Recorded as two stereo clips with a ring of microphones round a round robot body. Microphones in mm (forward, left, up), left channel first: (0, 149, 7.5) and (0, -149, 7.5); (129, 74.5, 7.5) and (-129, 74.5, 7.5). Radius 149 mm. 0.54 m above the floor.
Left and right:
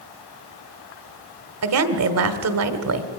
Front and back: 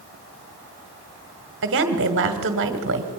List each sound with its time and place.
1.6 s a woman speaking: 130° right, 1.5 m